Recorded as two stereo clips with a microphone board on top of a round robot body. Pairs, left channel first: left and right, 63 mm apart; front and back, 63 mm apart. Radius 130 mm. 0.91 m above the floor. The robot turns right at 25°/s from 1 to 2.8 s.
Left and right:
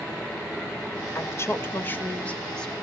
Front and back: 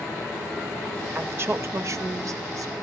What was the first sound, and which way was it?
A woman speaking, 130° left.